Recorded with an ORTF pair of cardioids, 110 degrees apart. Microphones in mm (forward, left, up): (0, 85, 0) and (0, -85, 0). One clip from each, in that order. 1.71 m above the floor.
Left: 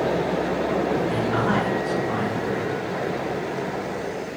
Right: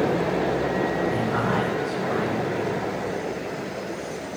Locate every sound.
1.1 s a man speaking: 60° left, 6 m